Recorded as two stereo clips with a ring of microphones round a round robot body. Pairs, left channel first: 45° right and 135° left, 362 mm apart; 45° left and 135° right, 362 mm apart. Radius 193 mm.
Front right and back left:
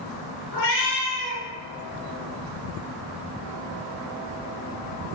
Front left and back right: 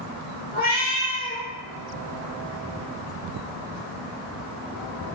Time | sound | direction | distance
0.5 | a cat meowing | 20° right | 2.0 m